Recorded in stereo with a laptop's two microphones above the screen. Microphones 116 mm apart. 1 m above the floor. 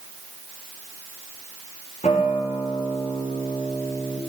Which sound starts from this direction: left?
A guitar, at 2.0 s.